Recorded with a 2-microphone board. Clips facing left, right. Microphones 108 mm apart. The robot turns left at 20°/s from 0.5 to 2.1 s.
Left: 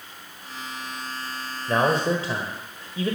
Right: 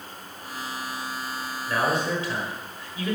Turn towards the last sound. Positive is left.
turn(degrees=35)  # may be behind; listen again after turning